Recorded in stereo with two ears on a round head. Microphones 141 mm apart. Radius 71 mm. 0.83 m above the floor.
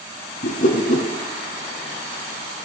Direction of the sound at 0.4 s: 55° left (ahead or behind).